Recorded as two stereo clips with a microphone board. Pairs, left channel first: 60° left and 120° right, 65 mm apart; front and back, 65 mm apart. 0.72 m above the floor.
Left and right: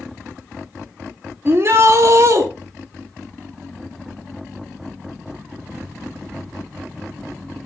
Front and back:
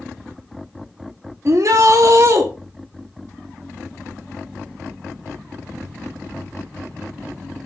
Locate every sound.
1.4 s a shout: 165° right, 1.1 m; by 2.5 s 150° right, 1.6 m